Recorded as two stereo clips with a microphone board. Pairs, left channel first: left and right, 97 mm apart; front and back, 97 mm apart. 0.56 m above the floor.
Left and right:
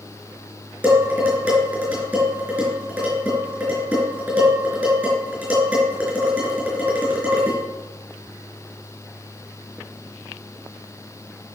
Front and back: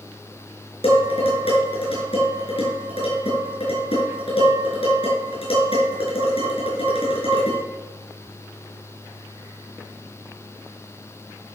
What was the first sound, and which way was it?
Dishes clattering, 15° right.